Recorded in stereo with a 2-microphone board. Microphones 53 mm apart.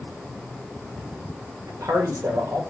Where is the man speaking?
80° right, 1.1 m.